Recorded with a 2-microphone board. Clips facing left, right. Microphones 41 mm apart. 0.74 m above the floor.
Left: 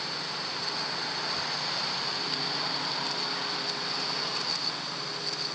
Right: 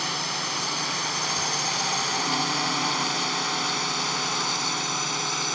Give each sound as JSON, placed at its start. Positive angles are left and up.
{"t": 0.0, "sound": "a drone", "side_deg": -75}